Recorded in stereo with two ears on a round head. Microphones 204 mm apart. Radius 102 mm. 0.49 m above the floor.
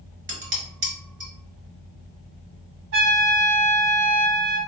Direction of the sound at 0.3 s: 50° right (ahead or behind).